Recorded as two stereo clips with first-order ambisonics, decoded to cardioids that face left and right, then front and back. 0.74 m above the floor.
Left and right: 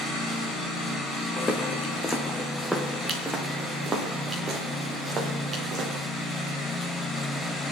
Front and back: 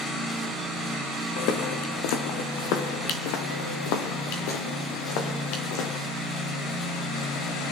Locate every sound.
1.4 s footsteps: 20° left, 2 m; by 6.0 s 25° right, 4.5 m